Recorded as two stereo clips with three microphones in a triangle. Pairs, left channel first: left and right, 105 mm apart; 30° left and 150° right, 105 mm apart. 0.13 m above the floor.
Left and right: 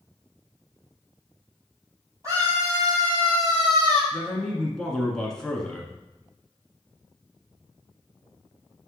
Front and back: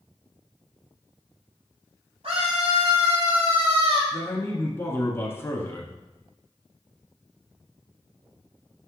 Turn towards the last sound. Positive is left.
turn(degrees=15)